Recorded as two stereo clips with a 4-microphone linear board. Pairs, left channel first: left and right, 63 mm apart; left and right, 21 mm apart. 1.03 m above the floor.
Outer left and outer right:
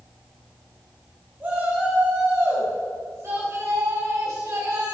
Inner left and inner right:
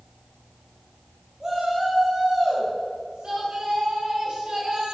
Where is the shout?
35° right (ahead or behind), 5 m; by 4.9 s 60° right (ahead or behind), 5.5 m.